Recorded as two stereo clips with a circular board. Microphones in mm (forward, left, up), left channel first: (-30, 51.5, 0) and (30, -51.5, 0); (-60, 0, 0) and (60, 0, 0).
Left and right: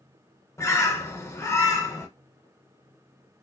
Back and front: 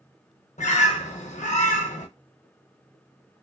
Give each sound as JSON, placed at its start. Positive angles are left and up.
{"t": 0.6, "sound": "a bird", "azimuth_deg": -175, "distance_m": 0.6}